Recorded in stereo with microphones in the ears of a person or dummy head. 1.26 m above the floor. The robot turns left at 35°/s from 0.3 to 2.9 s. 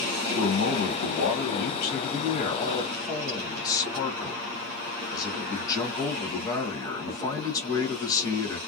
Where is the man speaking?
105° left, 1.1 m; by 8.6 s 15° left, 1.1 m.